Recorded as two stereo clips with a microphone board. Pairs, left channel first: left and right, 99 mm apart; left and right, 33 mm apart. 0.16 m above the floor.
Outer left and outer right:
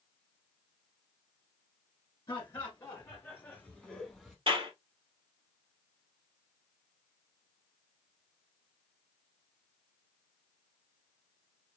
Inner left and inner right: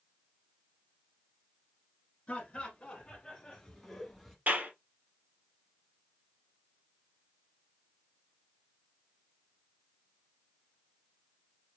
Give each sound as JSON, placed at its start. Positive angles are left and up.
{"t": 2.3, "sound": "laughter", "side_deg": 35, "distance_m": 1.7}
{"t": 4.5, "sound": "a clap", "side_deg": -55, "distance_m": 2.5}